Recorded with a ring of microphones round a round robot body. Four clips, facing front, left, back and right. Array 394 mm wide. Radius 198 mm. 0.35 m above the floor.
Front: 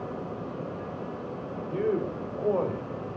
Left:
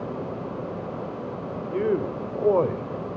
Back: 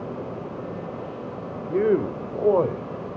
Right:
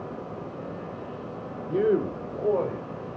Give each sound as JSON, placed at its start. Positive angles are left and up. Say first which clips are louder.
{"t": 1.7, "sound": "a man speaking", "louder": "right 2 dB, back 7 dB", "azimuth_deg": -150, "distance_m": 1.8}